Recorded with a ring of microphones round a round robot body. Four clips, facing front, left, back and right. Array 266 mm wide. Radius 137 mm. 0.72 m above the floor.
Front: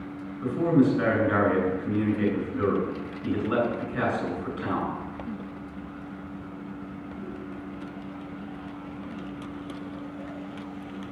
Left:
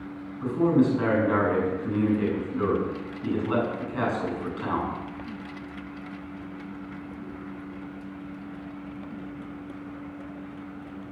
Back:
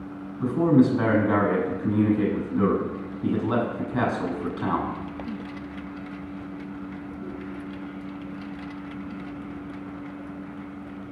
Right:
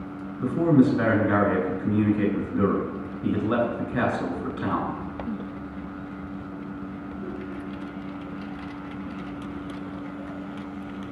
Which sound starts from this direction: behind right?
A man speaking, at 0.4 s.